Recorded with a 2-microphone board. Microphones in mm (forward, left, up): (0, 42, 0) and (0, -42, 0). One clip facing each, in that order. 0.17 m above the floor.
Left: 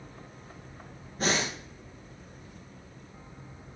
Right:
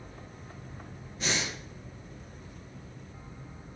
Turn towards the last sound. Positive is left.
turn(degrees=40)  # may be behind; listen again after turning